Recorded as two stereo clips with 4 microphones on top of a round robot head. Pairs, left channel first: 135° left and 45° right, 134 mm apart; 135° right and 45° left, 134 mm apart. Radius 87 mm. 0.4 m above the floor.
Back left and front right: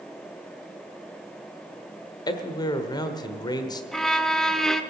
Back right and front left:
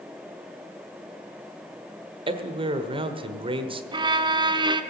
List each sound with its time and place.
2.3 s a man speaking: 80° left, 1.3 m
3.9 s a violin: 50° left, 1.0 m